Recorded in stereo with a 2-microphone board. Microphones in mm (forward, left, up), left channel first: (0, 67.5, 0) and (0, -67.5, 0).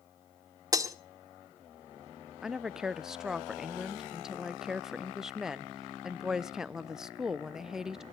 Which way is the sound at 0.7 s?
25° right (ahead or behind).